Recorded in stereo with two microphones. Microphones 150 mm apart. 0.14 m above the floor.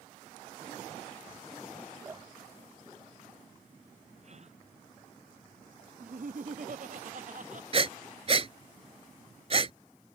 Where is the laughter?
60° right (ahead or behind).